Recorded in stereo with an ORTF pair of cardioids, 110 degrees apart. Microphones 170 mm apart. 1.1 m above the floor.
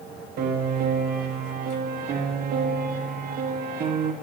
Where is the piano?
65° right, 1.2 m.